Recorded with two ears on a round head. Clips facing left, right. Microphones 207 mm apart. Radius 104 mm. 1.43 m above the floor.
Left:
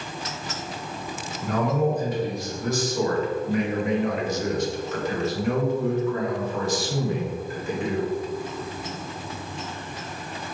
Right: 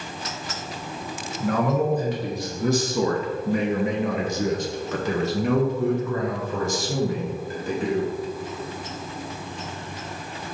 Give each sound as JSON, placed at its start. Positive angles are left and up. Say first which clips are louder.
{"t": 1.4, "sound": "a man speaking", "louder": "right 1 dB", "side_deg": -45, "distance_m": 1.8}